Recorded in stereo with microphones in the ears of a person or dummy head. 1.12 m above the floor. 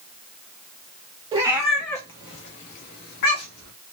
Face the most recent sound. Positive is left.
turn(degrees=65)  # may be behind; listen again after turning